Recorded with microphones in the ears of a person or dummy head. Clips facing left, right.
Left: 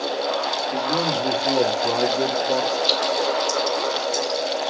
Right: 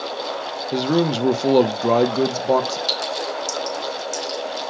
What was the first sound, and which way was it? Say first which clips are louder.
A man speaking: right 7 dB; 40° right (ahead or behind).